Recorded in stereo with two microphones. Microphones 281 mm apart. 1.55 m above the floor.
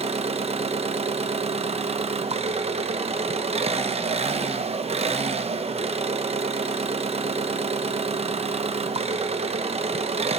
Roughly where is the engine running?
Right.